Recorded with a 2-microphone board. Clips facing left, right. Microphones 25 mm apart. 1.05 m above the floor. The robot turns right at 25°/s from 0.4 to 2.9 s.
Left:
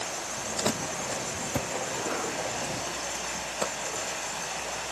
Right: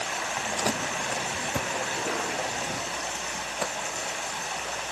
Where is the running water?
85° right, 3.5 m; by 4.9 s 20° right, 3.5 m.